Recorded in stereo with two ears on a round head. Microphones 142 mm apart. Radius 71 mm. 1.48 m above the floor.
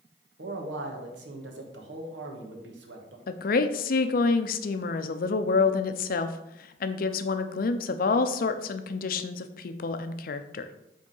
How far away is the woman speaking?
About 0.5 m.